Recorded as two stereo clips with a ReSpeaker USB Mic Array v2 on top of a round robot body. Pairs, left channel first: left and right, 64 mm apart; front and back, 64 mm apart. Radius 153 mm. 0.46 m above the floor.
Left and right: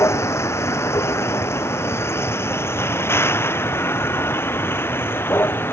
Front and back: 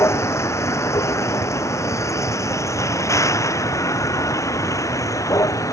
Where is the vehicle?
45° left; by 5.7 s 35° left.